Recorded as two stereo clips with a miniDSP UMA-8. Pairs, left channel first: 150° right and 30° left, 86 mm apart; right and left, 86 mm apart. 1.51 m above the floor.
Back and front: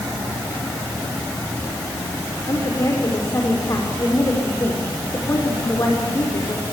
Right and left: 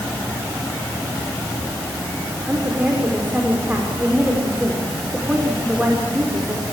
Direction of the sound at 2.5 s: 160° left.